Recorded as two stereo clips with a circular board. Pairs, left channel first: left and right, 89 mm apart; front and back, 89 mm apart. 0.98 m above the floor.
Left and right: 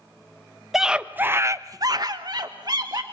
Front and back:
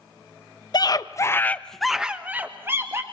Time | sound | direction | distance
0.7 | a scream | 5° right | 1.1 m